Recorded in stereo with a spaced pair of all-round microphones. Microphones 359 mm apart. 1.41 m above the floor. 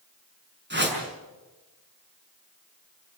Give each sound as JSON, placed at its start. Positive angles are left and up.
{"t": 0.7, "sound": "a whoosh", "side_deg": -30, "distance_m": 6.0}